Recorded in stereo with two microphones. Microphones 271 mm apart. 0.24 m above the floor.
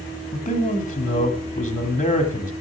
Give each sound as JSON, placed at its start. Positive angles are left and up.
{"t": 0.3, "sound": "a man speaking", "side_deg": 30, "distance_m": 1.5}